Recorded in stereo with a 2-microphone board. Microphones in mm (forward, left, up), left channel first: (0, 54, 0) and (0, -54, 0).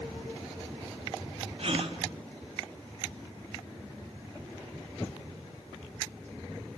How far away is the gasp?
About 2 m.